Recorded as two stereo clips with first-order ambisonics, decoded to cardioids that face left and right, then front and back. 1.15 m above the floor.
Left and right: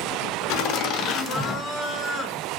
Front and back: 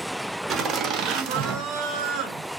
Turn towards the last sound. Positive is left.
turn(degrees=160)